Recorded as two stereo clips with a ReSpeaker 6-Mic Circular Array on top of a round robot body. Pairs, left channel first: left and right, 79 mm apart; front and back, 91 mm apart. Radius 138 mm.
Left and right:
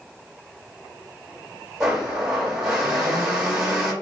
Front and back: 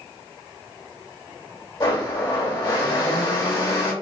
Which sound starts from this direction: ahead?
A blender, at 1.8 s.